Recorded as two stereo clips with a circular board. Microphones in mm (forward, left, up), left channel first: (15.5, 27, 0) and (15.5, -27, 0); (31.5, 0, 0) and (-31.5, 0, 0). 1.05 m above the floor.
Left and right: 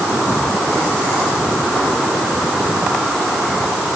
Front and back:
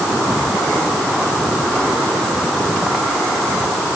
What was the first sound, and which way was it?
Only background noise.